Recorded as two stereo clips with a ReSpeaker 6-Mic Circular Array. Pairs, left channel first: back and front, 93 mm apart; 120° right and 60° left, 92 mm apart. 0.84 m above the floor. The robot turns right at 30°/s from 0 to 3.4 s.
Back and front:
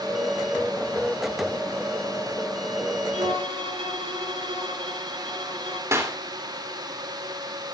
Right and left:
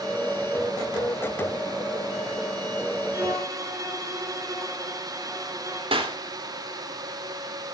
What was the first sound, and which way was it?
A violin, straight ahead.